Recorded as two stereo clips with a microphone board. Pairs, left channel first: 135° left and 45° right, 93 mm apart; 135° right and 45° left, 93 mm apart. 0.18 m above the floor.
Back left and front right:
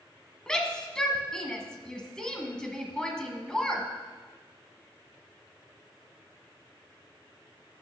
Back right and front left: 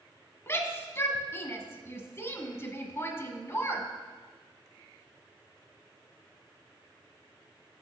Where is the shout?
150° right, 1.1 m.